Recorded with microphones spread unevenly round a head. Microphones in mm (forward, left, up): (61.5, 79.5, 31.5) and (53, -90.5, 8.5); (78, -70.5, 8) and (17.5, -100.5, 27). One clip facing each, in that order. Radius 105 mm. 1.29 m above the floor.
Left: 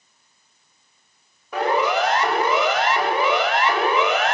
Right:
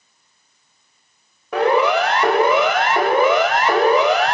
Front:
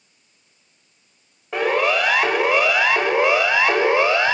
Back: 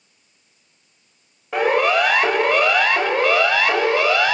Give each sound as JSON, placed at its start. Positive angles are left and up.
{"t": 1.5, "sound": "a siren", "azimuth_deg": -65, "distance_m": 8.5}